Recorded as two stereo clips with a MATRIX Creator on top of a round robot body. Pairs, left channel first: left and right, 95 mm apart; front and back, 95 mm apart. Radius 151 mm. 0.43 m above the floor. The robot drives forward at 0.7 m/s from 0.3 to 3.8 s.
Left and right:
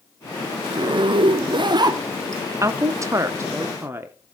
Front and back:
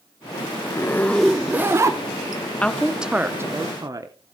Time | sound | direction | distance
0.7 | a zipper | 50° right | 0.8 m
2.6 | a woman speaking | 70° right | 0.9 m